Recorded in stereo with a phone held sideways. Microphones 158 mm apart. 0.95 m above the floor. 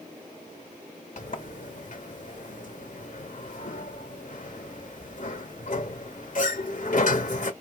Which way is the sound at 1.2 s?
60° left (ahead or behind).